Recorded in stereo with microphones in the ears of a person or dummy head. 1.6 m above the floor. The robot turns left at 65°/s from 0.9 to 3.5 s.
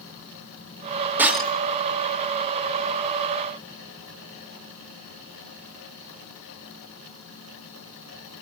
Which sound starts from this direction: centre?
Breaking glass, at 1.2 s.